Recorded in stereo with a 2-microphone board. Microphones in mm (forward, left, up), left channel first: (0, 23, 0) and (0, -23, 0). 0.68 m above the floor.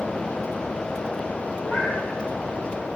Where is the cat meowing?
75° left (ahead or behind), 6.5 m.